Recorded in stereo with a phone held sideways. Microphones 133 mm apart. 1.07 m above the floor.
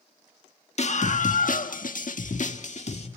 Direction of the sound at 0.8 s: 55° left (ahead or behind).